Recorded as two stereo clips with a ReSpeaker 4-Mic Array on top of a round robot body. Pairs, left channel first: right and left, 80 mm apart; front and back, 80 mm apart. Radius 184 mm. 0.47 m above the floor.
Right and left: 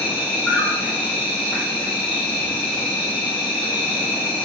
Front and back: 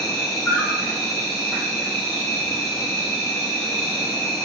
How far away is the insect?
About 1.4 m.